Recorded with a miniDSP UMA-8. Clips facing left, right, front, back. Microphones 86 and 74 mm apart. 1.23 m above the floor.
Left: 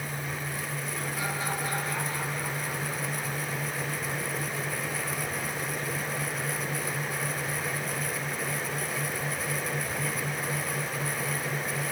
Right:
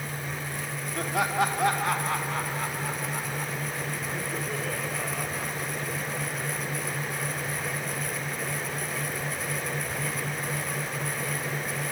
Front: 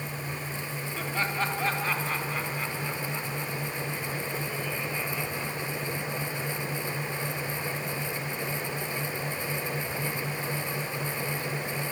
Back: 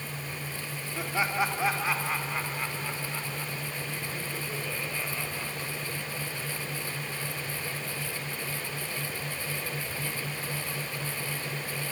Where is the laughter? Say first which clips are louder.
Right 10 dB, back 2 dB; 105° right, 4 m; by 6.1 s 90° right, 6.5 m.